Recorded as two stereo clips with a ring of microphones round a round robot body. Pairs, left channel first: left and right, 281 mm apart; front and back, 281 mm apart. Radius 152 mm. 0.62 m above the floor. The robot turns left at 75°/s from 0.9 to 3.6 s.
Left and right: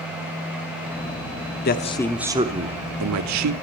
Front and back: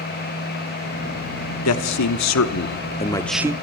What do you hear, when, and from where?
1.6 s a man speaking: 35° left, 1.0 m; by 3.5 s 105° right, 1.0 m